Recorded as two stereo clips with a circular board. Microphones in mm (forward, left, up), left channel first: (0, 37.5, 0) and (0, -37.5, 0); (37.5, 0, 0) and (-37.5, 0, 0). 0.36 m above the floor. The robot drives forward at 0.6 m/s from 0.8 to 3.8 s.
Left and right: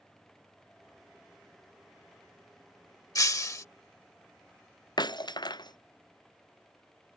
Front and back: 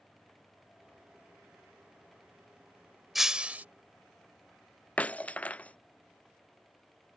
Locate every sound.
3.1 s breaking glass: 90° left; by 3.6 s 120° left
5.0 s breaking glass: 70° left